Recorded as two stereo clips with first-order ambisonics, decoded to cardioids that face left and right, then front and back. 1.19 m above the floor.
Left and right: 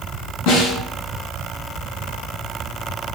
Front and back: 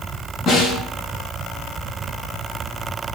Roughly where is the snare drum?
Ahead left.